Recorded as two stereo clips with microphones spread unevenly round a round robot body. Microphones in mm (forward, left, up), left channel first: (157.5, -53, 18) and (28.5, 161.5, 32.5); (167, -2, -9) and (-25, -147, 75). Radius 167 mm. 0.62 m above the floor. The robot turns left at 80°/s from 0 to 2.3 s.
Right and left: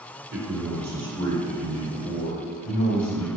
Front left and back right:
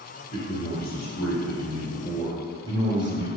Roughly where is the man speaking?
Left.